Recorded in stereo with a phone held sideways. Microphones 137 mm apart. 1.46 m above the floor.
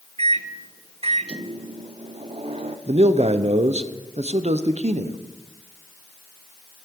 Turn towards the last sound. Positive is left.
turn(degrees=-50)  # may be behind; listen again after turning